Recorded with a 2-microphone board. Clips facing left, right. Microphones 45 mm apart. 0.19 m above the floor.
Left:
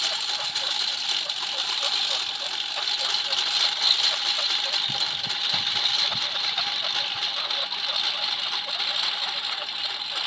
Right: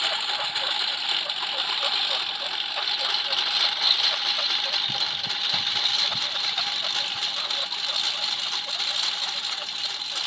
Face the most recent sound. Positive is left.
turn(degrees=10)  # may be behind; listen again after turning